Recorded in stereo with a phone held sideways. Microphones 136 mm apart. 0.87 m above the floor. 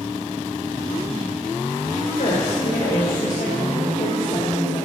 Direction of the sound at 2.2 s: 75° left (ahead or behind).